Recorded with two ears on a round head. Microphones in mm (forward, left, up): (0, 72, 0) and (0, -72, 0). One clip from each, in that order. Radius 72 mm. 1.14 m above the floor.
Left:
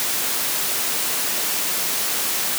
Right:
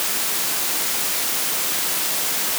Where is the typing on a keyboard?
No typing on a keyboard in this recording.